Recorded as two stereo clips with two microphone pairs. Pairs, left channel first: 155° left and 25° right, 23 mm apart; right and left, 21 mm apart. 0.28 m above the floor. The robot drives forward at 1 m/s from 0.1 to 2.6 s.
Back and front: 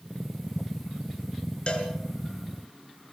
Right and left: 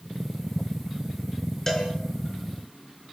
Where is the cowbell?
160° right, 4.5 m; by 1.9 s 165° right, 5 m.